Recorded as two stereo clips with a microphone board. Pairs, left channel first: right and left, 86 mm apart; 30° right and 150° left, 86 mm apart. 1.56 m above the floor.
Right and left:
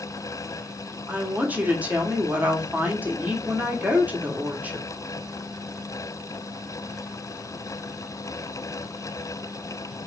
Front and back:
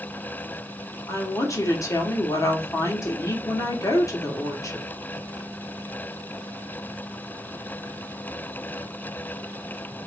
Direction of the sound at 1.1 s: 20° left.